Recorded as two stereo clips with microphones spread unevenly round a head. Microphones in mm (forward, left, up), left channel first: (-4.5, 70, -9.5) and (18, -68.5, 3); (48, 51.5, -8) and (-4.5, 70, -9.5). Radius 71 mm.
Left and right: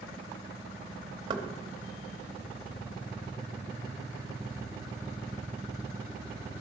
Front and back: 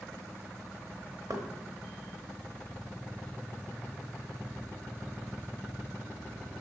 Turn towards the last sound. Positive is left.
turn(degrees=-140)